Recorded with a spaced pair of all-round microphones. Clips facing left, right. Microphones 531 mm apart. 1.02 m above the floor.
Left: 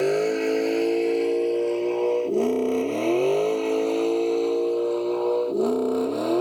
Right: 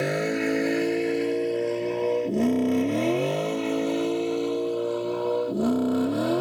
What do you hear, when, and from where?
0.0 s a vehicle: 40° right (ahead or behind); by 6.4 s 35° right (ahead or behind)